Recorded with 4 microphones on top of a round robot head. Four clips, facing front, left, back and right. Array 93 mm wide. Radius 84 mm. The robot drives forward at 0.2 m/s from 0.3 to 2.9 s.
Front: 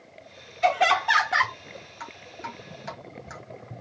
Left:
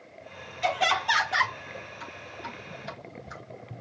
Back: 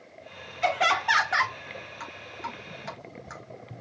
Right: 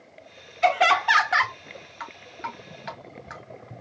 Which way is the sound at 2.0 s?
105° right.